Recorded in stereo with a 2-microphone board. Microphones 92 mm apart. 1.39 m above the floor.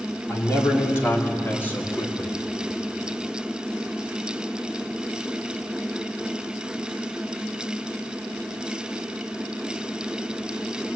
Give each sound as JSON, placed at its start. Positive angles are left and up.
{"t": 0.3, "sound": "a man speaking", "side_deg": 30, "distance_m": 4.0}